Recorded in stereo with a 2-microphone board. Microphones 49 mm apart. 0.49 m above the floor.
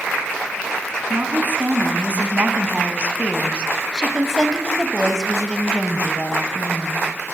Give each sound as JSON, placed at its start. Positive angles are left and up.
{"t": 1.1, "sound": "a woman speaking", "side_deg": -45, "distance_m": 4.0}